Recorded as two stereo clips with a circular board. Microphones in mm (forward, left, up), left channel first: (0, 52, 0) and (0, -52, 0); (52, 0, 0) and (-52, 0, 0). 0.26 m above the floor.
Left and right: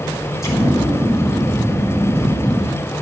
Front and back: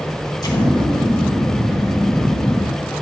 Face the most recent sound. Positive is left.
turn(degrees=35)